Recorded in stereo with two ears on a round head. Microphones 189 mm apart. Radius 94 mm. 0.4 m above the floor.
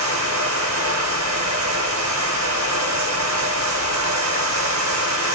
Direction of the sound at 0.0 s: 75° right (ahead or behind).